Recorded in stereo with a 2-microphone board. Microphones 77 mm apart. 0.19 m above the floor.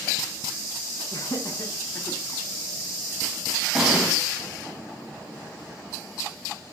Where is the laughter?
55° left (ahead or behind), 1.5 m; by 2.2 s 35° left (ahead or behind), 2 m.